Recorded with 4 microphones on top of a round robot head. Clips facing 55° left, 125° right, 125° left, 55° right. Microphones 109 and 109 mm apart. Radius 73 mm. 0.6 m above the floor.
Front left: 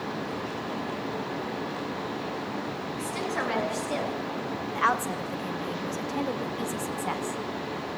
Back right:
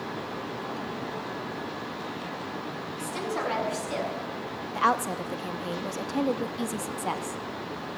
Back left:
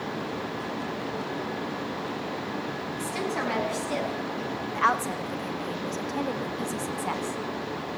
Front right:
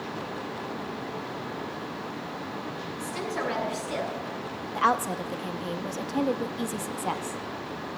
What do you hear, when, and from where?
3.0 s a woman speaking: 165° left, 5 m; by 4.1 s 175° left, 6.5 m
4.8 s a woman speaking: 100° right, 0.8 m